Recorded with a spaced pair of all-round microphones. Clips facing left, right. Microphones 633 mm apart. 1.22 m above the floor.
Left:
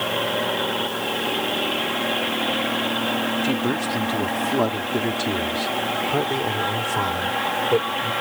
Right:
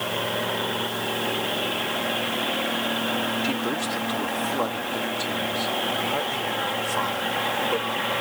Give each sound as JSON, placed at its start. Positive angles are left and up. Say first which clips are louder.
{"t": 3.4, "sound": "a man speaking", "louder": "left 4 dB", "side_deg": 70}